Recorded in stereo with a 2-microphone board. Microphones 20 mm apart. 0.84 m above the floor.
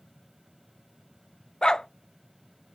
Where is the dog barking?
40° left (ahead or behind), 0.5 m.